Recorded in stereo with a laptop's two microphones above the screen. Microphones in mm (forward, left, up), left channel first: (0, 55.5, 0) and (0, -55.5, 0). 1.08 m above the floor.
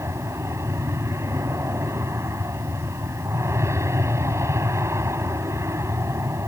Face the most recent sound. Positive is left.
turn(degrees=-25)  # may be behind; listen again after turning